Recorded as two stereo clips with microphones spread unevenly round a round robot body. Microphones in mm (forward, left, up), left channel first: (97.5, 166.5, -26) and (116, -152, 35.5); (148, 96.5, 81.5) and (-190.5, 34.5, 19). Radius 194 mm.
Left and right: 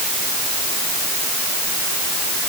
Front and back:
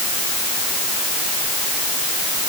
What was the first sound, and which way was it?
Only background noise.